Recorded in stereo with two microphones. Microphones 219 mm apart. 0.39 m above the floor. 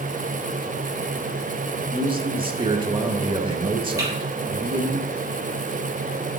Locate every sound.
1.9 s a man speaking: 25° right (ahead or behind), 0.9 m
4.0 s typing on a keyboard: 15° right (ahead or behind), 4.5 m